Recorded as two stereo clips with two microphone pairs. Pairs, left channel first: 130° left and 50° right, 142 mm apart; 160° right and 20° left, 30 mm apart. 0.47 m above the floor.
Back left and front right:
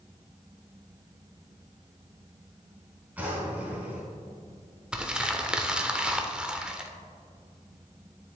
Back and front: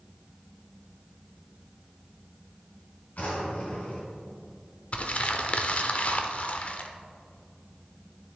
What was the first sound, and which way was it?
A drawer, 130° right.